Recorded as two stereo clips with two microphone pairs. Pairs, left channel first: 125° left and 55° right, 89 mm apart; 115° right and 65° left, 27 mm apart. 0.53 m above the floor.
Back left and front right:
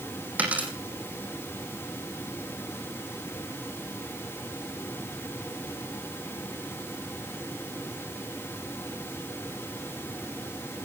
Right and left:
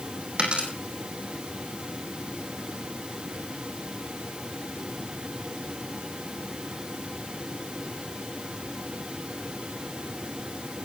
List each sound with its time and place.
0.4 s a dropped coin: 20° left, 5.5 m